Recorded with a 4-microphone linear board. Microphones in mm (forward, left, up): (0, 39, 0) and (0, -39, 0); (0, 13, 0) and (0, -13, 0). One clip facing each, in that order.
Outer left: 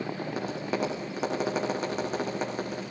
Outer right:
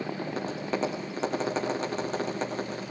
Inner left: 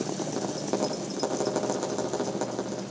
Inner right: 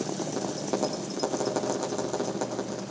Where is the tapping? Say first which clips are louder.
Even, even; 5° left (ahead or behind), 8.5 m.